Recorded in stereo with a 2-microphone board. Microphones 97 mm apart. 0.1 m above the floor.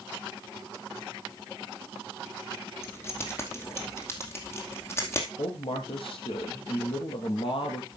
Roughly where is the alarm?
No alarm in this recording.